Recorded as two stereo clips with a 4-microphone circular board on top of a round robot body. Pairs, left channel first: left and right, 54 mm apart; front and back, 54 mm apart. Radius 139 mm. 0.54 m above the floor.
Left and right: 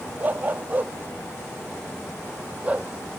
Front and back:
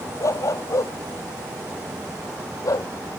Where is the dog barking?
30° right; by 2.9 s 20° right.